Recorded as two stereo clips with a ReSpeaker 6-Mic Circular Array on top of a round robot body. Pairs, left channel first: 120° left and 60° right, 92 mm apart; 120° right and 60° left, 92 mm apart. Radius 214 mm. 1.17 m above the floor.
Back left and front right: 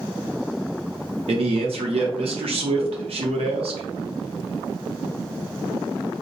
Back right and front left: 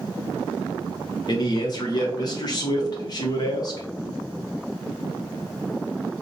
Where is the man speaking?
75° right, 0.7 m.